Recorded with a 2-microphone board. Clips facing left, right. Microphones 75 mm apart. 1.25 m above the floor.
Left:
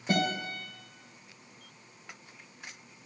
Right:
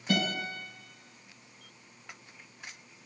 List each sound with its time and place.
0.1 s a guitar: 40° left (ahead or behind), 3.5 m